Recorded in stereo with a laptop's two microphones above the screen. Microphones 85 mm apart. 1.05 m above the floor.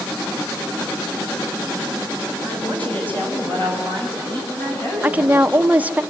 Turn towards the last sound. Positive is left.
turn(degrees=-20)  # may be behind; listen again after turning